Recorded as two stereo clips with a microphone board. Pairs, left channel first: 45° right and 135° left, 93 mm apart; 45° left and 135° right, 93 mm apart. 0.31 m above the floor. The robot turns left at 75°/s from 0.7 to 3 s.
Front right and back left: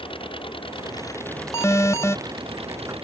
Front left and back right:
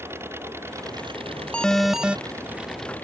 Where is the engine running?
70° right; by 3.0 s 115° left.